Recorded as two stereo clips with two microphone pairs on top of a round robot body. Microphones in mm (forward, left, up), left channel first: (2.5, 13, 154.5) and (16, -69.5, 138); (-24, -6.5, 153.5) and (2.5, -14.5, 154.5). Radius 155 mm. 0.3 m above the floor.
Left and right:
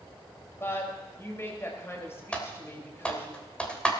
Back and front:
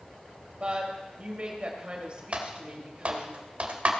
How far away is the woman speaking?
About 3.5 m.